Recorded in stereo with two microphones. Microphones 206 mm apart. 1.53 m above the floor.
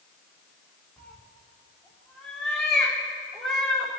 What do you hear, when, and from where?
1.0 s a cat meowing: 5° left (ahead or behind), 3.5 m